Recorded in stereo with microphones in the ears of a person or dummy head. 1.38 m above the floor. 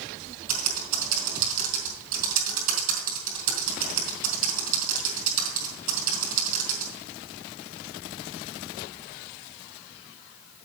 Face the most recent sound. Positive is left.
turn(degrees=-45)  # may be behind; listen again after turning